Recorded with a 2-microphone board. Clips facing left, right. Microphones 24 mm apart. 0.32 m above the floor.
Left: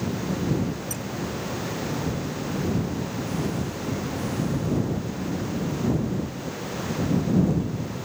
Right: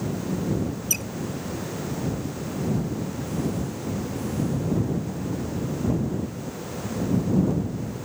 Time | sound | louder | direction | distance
0.9 | a squeak | right 6 dB | 70° right (ahead or behind) | ?